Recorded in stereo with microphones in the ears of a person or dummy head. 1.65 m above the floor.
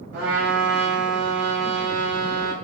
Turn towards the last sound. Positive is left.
turn(degrees=-60)  # may be behind; listen again after turning